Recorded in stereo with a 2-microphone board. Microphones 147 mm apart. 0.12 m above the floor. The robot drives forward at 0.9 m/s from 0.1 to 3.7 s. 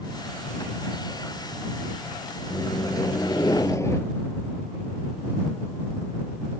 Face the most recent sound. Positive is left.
turn(degrees=20)  # may be behind; listen again after turning